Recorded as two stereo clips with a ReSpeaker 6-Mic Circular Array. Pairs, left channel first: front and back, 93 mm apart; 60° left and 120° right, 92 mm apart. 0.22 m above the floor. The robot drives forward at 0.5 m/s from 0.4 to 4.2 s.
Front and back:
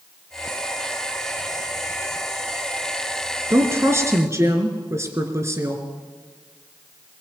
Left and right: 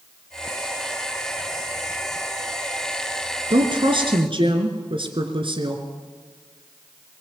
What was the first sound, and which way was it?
A woman speaking, 120° right.